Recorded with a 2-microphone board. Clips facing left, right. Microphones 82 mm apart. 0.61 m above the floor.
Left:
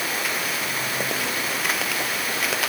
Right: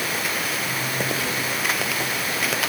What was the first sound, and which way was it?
Only background noise.